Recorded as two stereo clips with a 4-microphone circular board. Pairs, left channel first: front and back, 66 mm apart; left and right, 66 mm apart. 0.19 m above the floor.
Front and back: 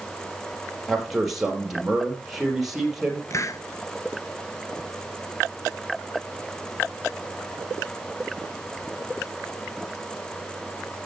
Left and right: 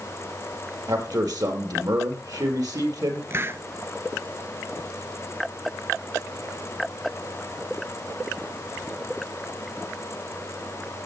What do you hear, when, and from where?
0.9 s a man speaking: 95° right, 4 m
3.3 s a hiss: 35° right, 0.7 m